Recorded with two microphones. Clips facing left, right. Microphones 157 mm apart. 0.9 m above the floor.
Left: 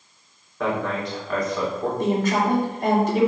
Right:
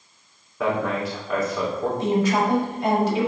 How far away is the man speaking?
About 2.5 m.